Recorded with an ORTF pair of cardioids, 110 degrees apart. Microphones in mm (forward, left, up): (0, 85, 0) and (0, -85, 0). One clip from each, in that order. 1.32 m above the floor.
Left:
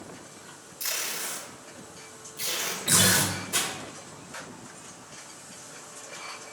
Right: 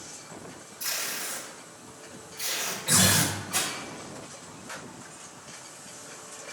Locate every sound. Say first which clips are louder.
0.8 s tape being pulled: even; 40° left, 2 m
2.9 s a guitar: left 1 dB; 45° left, 2.5 m